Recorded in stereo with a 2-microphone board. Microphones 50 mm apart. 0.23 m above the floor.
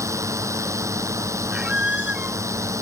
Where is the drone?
80° right.